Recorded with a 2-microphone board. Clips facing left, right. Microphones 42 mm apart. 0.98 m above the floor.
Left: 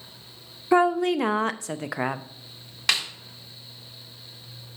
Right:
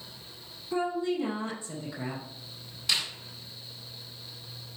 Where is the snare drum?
90° left, 1.7 m.